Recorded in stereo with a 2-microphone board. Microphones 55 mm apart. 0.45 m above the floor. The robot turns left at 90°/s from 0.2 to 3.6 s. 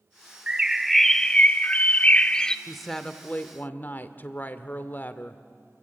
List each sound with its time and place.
0.5 s a bird: 15° right (ahead or behind), 0.6 m; by 2.6 s 10° left (ahead or behind), 0.6 m
2.7 s a woman speaking: 170° right, 1.1 m; by 5.4 s 105° left, 1.1 m